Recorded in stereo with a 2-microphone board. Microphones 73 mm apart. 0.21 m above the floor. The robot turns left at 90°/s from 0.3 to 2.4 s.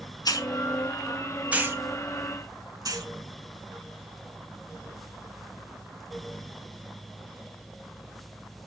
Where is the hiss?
60° left (ahead or behind), 1.3 m; by 3.1 s 60° right (ahead or behind), 1.3 m.